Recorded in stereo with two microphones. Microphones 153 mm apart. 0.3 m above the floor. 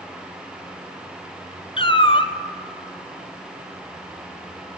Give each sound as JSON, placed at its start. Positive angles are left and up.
{"t": 1.8, "sound": "a cat meowing", "side_deg": 35, "distance_m": 1.0}